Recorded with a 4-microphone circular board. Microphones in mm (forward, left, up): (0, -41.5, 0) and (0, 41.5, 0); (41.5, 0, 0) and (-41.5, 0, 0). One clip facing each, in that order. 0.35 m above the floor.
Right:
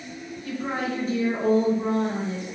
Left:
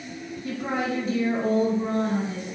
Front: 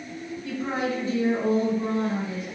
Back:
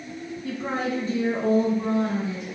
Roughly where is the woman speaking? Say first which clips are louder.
Left 1 dB, even; behind left.